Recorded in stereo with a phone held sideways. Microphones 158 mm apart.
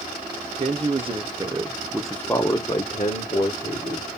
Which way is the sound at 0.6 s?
40° right (ahead or behind).